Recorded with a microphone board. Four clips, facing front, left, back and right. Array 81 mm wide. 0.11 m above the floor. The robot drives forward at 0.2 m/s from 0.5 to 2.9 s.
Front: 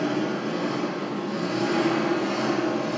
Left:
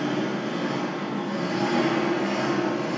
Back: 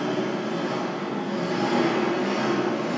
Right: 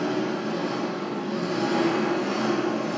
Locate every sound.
0.0 s an engine running: 100° left, 1.1 m; by 3.0 s 135° left, 1.2 m